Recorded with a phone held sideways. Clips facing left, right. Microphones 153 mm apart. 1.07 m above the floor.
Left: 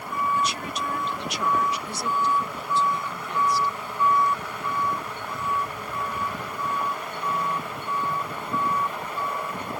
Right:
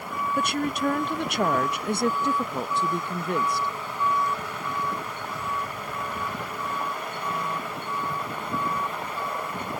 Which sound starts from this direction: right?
A woman speaking, at 0.4 s.